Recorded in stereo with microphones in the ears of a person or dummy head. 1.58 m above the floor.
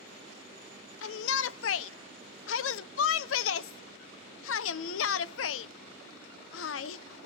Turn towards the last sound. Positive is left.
turn(degrees=85)